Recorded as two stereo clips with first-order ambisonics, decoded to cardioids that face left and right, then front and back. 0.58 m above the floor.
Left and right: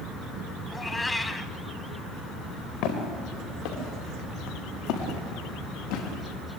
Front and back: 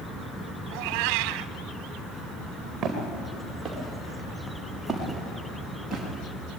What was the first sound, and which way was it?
A cat meowing, 170° left.